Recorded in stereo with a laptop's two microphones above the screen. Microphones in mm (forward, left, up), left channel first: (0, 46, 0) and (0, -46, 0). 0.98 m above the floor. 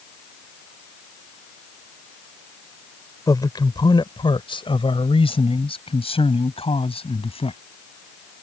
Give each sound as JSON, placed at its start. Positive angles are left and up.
{"t": 3.3, "sound": "a man speaking", "side_deg": 40}